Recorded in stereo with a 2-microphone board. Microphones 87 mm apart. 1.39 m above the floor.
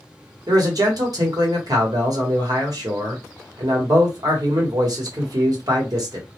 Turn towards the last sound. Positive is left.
turn(degrees=-50)  # may be behind; listen again after turning